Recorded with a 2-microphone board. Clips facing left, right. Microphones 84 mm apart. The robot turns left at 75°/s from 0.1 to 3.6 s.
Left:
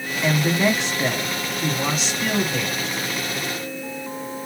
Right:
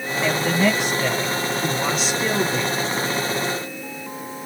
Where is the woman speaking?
20° left (ahead or behind), 1.0 m; by 2.9 s 20° right (ahead or behind), 1.0 m.